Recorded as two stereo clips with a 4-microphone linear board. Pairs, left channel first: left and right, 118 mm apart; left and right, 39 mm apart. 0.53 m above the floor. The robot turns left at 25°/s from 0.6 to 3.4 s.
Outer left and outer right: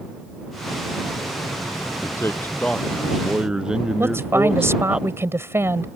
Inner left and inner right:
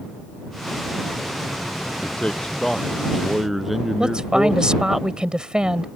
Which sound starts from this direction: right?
A woman speaking, at 4.0 s.